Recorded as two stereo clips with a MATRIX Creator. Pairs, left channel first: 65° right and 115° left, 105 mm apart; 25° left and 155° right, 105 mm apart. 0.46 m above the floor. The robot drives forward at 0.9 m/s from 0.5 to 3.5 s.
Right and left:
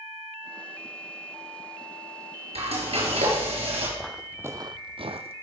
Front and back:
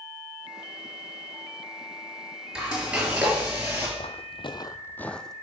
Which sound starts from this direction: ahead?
Footsteps, at 4.0 s.